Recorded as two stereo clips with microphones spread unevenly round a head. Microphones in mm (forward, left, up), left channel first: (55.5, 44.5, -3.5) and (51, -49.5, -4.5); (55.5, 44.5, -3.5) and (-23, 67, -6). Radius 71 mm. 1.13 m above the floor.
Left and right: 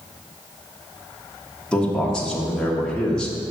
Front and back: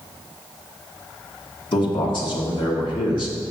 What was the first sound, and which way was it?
A man speaking, 5° left.